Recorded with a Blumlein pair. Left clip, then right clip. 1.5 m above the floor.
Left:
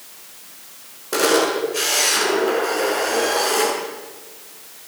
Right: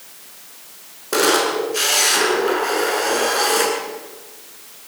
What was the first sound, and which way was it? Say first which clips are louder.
A camera shutter: right 1 dB; 10° right.